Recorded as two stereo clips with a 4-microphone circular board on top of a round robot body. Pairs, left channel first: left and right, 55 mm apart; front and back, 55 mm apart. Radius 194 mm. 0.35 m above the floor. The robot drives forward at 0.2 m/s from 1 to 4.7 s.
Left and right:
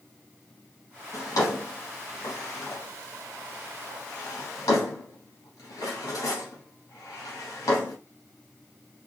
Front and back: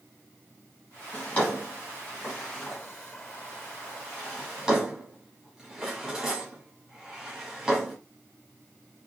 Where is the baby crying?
I don't hear a baby crying.